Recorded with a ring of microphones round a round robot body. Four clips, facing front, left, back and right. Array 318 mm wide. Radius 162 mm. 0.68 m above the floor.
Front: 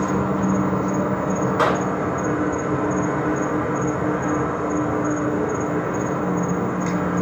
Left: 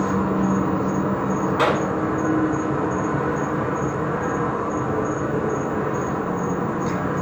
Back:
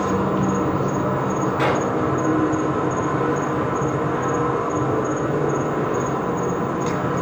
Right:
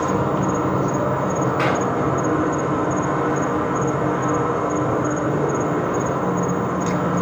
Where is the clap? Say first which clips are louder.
Left 3 dB, front 1 dB; 20° left, 6.5 m.